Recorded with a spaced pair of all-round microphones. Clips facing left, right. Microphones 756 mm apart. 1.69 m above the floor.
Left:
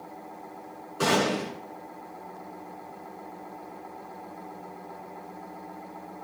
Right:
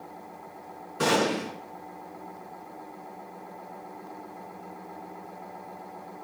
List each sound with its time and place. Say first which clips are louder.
1.0 s a gunshot: even; 25° right (ahead or behind), 4.5 m